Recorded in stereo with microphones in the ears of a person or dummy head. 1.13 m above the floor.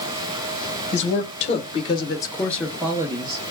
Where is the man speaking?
40° left (ahead or behind), 1.1 m; by 3.5 s 35° right (ahead or behind), 0.6 m.